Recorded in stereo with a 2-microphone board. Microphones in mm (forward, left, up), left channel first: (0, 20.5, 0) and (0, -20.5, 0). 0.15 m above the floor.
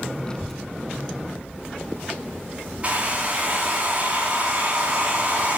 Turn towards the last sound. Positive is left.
turn(degrees=-35)  # may be behind; listen again after turning